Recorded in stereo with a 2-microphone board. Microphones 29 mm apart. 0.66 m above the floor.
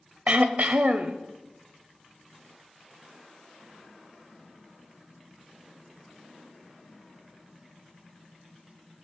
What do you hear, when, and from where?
0.3 s throat clearing: 60° right (ahead or behind), 0.7 m